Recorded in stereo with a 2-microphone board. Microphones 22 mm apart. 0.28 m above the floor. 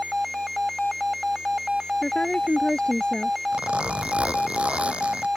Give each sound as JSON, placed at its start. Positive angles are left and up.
{"t": 2.0, "sound": "a woman speaking", "side_deg": 45}
{"t": 3.5, "sound": "a zipper", "side_deg": -60}